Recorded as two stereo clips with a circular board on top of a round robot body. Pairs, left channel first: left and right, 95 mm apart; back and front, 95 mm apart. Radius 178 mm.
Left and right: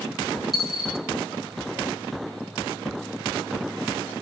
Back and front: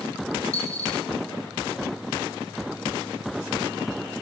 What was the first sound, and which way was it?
A dropped coin, straight behind.